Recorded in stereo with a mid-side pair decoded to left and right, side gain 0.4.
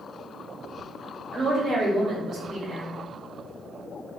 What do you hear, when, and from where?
1.3 s a woman speaking: 65° right, 0.9 m